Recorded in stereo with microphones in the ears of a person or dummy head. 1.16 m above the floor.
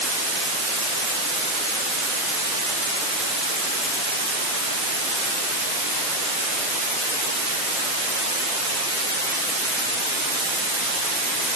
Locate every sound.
Only background noise.